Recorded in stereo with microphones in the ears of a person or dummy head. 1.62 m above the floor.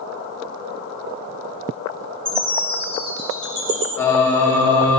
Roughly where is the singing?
Centre.